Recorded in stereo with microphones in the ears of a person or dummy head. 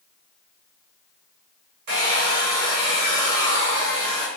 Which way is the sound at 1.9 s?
70° right (ahead or behind).